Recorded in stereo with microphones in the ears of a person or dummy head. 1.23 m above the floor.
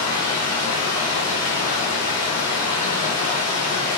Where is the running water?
20° left (ahead or behind), 1.7 m.